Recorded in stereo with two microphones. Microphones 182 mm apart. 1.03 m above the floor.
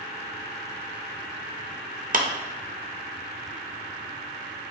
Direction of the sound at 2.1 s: 50° right (ahead or behind).